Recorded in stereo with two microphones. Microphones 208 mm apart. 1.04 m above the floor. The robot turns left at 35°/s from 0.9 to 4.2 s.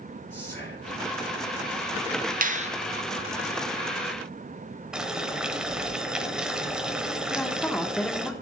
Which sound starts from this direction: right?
A finger snap, at 2.4 s.